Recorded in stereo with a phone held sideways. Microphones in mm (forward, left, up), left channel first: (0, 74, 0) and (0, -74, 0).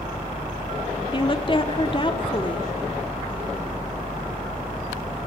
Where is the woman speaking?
35° left (ahead or behind), 2 m.